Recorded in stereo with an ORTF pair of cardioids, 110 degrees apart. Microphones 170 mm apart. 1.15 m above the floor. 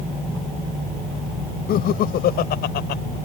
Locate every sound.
1.7 s laughter: 65° left; by 3.0 s 80° left